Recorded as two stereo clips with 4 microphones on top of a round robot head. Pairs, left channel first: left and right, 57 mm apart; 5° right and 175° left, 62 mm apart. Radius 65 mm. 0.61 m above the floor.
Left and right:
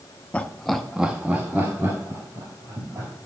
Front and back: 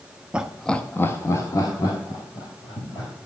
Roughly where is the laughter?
Behind left.